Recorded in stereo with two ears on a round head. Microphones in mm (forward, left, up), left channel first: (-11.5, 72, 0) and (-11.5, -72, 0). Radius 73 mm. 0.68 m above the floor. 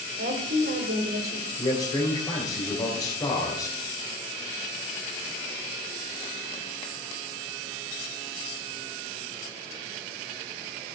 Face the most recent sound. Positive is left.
turn(degrees=20)  # may be behind; listen again after turning